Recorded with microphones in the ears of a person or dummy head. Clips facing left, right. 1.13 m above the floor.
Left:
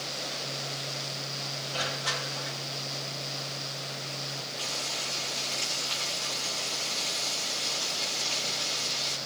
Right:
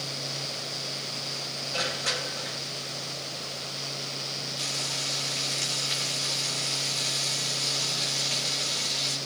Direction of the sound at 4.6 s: 20° right (ahead or behind).